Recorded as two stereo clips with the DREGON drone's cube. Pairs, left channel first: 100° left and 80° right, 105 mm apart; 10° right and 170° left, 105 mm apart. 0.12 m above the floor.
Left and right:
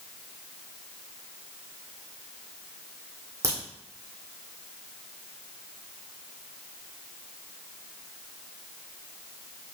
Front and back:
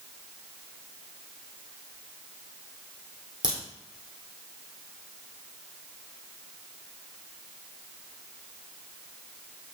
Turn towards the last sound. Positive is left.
turn(degrees=-140)